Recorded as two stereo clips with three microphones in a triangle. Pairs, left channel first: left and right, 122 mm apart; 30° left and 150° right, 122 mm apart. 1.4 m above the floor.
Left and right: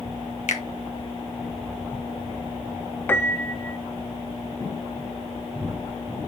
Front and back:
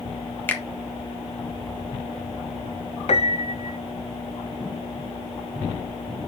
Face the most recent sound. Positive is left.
turn(degrees=20)